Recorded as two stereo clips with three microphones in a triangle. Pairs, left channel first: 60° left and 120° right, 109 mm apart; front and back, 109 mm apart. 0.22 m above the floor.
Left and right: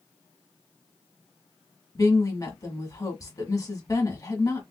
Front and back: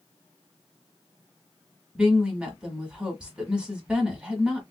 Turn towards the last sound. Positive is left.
turn(degrees=105)